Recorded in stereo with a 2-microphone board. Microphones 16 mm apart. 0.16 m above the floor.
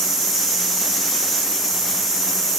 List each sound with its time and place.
Only background noise.